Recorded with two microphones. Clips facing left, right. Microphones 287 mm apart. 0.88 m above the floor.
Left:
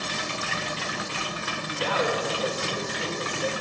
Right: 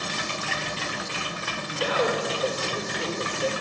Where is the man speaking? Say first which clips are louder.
Right 2 dB; 15° right (ahead or behind), 3.5 m.